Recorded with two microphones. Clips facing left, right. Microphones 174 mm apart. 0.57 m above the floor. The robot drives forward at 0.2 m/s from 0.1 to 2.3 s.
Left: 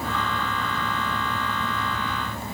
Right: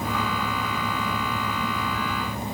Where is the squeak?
No squeak in this recording.